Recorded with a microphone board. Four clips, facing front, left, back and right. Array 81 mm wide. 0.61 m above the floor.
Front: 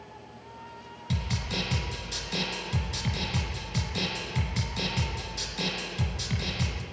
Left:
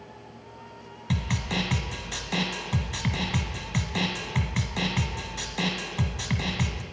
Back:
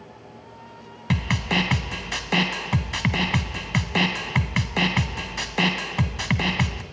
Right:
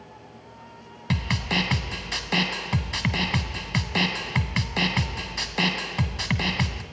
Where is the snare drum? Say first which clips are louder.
Right 3 dB, back 9 dB; 160° right, 1.2 m.